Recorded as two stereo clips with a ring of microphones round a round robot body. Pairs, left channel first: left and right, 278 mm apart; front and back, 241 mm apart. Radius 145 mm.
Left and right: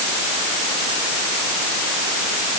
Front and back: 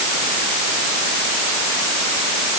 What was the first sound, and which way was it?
Only background noise.